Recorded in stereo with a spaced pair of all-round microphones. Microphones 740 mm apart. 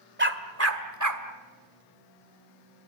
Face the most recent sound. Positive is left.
turn(degrees=-25)  # may be behind; listen again after turning